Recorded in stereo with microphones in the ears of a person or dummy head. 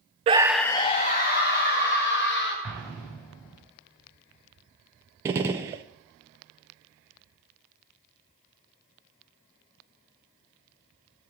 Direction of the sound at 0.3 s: 35° right (ahead or behind).